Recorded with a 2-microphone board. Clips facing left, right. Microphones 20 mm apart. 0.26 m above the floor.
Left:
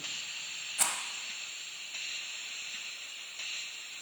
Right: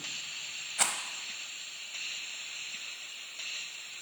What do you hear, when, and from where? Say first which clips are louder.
0.8 s a rattle: right 2 dB; 20° right (ahead or behind), 1.0 m